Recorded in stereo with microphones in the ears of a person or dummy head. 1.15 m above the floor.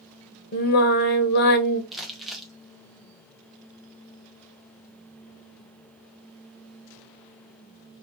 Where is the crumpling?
5° right (ahead or behind), 0.5 m.